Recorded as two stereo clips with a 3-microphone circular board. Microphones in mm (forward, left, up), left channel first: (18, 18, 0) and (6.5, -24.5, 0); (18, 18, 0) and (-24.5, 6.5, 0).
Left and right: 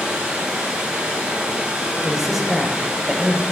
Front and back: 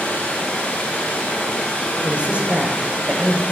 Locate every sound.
0.0 s running water: 40° right, 2.5 m
2.0 s a man speaking: straight behind, 1.1 m